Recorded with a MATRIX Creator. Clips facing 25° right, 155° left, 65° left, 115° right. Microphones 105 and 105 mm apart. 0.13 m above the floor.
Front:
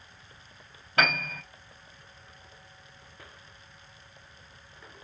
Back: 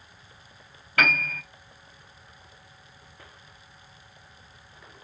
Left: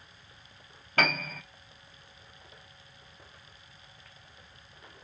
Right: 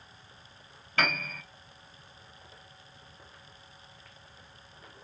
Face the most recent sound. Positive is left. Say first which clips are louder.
# back 1 dB, left 2 dB
turn(degrees=35)